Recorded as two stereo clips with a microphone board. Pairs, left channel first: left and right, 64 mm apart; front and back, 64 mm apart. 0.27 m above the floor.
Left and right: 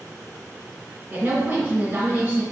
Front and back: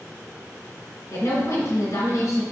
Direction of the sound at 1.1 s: 35° right.